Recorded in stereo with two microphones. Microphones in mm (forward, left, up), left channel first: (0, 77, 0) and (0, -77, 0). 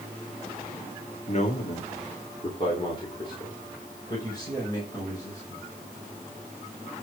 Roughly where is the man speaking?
Left.